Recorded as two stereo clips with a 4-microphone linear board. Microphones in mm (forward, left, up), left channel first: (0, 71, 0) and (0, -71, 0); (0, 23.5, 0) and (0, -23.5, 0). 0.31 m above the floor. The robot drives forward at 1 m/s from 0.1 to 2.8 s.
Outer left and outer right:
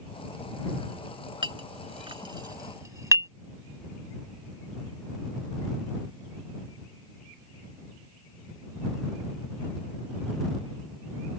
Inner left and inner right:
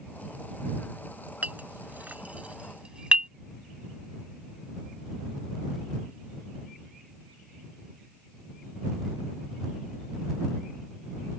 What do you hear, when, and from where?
1.4 s a clink: 35° right (ahead or behind); by 3.3 s 25° right (ahead or behind)